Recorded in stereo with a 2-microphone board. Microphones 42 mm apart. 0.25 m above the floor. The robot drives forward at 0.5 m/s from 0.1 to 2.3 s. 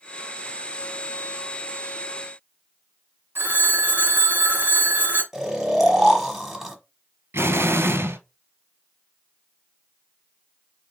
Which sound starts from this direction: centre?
Snoring, at 5.3 s.